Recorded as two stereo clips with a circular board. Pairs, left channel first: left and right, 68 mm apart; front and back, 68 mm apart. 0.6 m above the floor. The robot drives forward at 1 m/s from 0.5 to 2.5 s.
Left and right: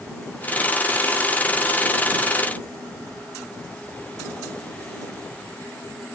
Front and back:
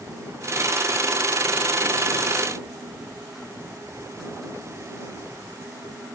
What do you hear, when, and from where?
Only background noise.